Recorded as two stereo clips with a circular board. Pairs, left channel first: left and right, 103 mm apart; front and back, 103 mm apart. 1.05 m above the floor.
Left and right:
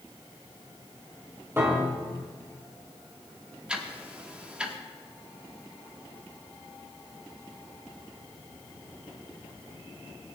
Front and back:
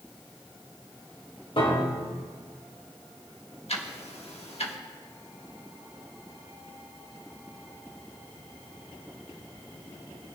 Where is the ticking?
10° right, 1.3 m.